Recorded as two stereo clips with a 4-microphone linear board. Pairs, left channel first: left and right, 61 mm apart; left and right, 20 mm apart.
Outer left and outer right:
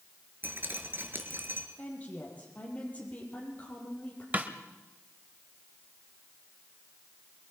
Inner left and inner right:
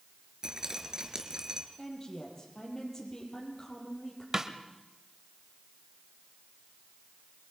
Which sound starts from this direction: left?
A woman speaking, at 1.8 s.